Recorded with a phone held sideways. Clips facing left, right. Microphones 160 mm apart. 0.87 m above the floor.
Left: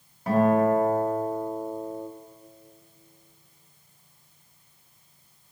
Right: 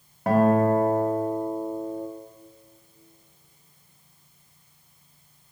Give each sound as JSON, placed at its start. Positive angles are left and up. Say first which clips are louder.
{"t": 0.3, "sound": "a guitar", "louder": "right 1 dB", "side_deg": -70, "distance_m": 1.9}